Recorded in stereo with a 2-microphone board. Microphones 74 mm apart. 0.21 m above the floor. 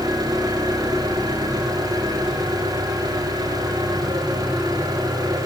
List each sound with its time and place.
0.0 s an engine running: 60° right (ahead or behind), 9.5 m